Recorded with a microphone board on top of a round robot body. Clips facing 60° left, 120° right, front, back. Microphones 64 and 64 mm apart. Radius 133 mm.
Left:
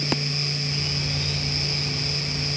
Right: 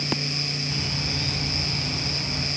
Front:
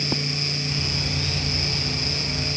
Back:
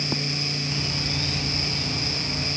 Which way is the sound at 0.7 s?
90° right.